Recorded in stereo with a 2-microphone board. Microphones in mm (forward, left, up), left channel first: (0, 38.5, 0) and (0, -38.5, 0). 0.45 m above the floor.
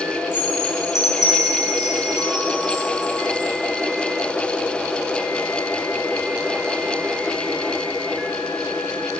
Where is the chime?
75° right (ahead or behind), 2.5 m.